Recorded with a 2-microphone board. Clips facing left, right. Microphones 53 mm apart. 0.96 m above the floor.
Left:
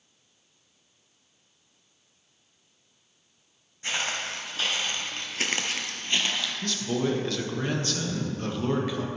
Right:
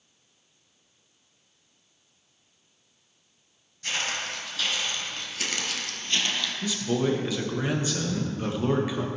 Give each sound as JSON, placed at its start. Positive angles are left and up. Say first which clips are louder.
{"t": 3.8, "sound": "footsteps", "louder": "even", "side_deg": 25, "distance_m": 3.0}
{"t": 6.6, "sound": "a man speaking", "louder": "right 2 dB", "side_deg": -10, "distance_m": 1.2}